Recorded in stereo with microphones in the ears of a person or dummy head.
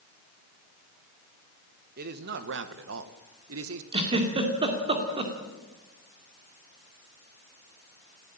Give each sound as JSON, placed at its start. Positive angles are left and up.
{"t": 2.0, "sound": "a man speaking", "side_deg": -45, "distance_m": 1.8}
{"t": 3.9, "sound": "a giggle", "side_deg": -25, "distance_m": 2.5}